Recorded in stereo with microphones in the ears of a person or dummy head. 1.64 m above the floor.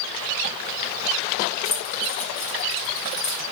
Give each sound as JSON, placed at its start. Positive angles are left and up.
{"t": 1.6, "sound": "keys jangling", "side_deg": 35, "distance_m": 1.5}